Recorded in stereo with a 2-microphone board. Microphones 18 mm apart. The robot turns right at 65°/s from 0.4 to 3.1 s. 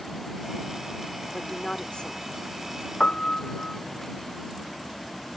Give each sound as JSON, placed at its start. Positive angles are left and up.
{"t": 1.3, "sound": "a woman speaking", "side_deg": 30}
{"t": 3.0, "sound": "a piano", "side_deg": 60}